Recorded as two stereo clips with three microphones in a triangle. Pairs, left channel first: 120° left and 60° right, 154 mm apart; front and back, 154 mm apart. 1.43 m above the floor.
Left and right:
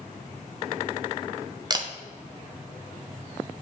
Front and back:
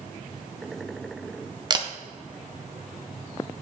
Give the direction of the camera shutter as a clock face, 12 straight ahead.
4 o'clock.